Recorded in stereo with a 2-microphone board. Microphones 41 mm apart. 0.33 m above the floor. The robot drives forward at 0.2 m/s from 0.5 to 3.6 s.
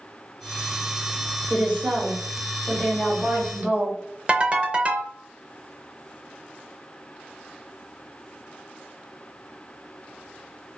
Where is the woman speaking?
30° right (ahead or behind), 1.1 m.